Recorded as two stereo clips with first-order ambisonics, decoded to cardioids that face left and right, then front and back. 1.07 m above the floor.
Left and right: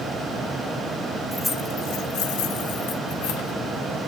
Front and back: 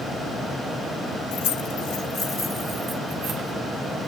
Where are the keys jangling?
5° left, 1.1 m; by 3.5 s 100° left, 2 m.